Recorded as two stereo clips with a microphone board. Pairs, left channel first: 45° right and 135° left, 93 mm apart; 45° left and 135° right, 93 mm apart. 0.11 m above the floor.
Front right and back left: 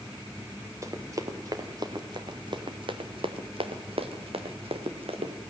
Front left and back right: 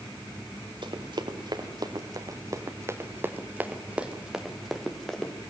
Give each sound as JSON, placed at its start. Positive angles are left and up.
{"t": 0.8, "sound": "running footsteps", "azimuth_deg": -165, "distance_m": 2.5}